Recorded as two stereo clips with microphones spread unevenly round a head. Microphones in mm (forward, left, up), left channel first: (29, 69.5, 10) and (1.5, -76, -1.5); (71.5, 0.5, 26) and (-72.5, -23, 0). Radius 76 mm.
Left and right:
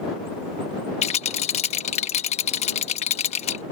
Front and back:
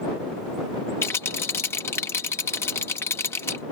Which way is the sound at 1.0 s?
70° left.